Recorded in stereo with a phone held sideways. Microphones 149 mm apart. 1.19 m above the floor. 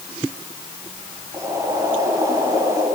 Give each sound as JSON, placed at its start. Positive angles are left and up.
{"t": 1.3, "sound": "boiling", "side_deg": -25, "distance_m": 8.0}